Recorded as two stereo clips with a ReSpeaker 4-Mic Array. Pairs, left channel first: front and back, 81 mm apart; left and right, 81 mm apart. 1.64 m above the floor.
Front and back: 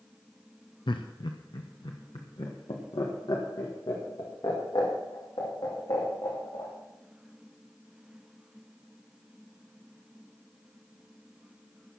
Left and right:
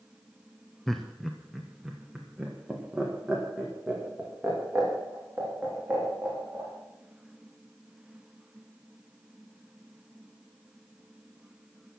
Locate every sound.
0.9 s laughter: 5° left, 0.8 m; by 6.7 s 20° right, 3.5 m